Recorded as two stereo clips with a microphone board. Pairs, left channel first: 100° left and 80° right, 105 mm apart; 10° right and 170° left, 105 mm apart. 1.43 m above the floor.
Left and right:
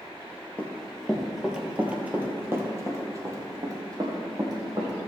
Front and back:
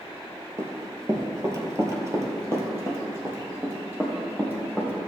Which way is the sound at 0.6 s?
165° left.